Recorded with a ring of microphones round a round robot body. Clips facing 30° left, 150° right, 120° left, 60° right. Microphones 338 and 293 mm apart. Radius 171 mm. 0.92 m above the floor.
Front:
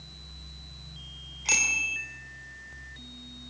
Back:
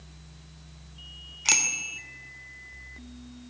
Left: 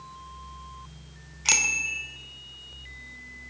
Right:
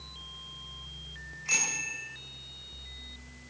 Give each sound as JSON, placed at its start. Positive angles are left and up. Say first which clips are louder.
{"t": 1.4, "sound": "a bicycle bell", "louder": "even, left 4 dB", "azimuth_deg": 150, "distance_m": 2.5}